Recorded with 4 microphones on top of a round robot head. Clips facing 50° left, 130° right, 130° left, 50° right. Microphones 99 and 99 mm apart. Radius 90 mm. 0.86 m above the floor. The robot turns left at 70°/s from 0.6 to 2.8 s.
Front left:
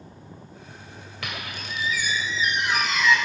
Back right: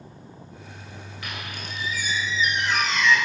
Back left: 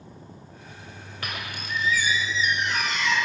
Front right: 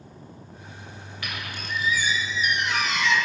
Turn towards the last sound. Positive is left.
turn(degrees=-35)